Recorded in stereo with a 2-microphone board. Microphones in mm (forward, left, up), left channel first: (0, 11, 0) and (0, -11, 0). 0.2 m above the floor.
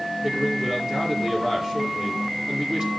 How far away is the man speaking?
About 4.5 m.